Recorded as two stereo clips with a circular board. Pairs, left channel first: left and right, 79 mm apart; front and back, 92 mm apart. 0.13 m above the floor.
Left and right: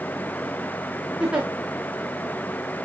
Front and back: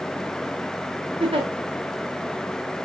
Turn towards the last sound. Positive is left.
turn(degrees=-170)